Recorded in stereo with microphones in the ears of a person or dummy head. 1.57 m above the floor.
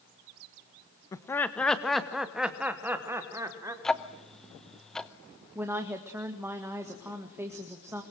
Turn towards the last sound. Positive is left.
turn(degrees=0)  # may be behind; listen again after turning